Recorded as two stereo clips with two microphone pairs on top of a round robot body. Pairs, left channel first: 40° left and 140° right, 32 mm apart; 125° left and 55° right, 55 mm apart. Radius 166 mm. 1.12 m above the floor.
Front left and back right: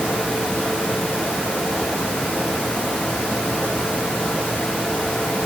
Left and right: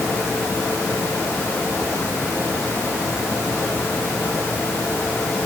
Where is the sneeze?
No sneeze in this recording.